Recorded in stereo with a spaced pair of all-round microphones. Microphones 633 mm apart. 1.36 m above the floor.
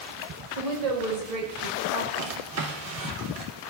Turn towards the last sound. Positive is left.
turn(degrees=-65)  # may be behind; listen again after turning